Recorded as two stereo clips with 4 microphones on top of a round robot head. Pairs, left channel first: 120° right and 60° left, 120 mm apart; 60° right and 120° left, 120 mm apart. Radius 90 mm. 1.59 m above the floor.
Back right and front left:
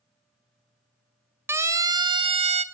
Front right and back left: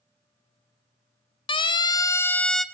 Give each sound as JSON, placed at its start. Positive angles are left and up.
{"t": 1.5, "sound": "a siren", "azimuth_deg": -15, "distance_m": 2.0}